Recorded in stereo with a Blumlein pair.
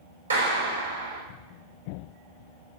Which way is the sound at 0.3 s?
70° right.